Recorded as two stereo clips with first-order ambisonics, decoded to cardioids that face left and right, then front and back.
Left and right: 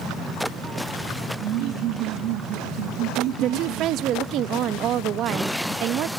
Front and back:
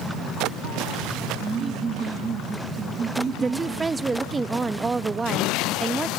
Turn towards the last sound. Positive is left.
turn(degrees=-110)